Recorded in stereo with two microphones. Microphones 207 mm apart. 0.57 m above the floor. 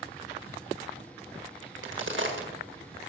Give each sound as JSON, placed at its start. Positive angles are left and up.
{"t": 1.6, "sound": "a crack", "side_deg": -70, "distance_m": 1.7}